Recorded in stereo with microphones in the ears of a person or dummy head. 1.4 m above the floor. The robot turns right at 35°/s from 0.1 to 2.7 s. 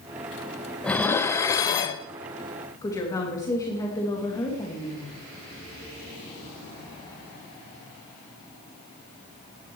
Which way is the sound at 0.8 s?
10° left (ahead or behind).